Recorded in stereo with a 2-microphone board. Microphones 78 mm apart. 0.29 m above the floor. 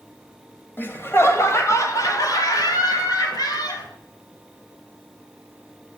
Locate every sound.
0.8 s laughter: 25° left (ahead or behind), 1.4 m; by 3.9 s 55° left (ahead or behind), 2.5 m